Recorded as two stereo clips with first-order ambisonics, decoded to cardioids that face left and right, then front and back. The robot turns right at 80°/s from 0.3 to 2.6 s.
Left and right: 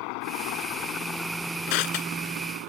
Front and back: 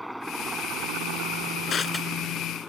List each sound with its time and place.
0.0 s a helicopter: 90° left; by 2.7 s 80° right
1.7 s crushing: 60° left; by 2.7 s 135° left